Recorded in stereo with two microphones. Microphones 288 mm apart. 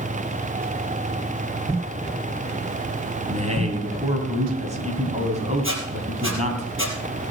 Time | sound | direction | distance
3.3 | a man speaking | 25° right (ahead or behind) | 3 m
5.6 | a squeak | 45° right (ahead or behind) | 3 m